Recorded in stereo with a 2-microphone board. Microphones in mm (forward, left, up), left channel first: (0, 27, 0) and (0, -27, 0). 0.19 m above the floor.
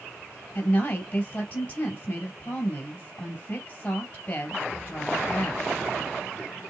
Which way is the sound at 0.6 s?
25° left (ahead or behind).